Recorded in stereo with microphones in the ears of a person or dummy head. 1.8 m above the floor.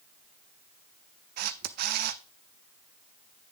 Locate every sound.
1.4 s a camera shutter: 50° right (ahead or behind), 0.5 m